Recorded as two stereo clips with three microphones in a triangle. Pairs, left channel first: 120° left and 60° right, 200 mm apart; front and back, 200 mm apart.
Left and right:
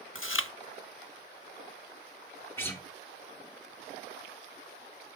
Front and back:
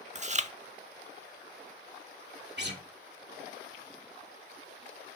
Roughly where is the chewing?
Behind left.